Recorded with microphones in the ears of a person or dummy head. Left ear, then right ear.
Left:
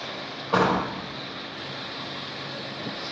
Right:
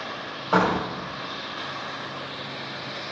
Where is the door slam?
45° right (ahead or behind), 2 m.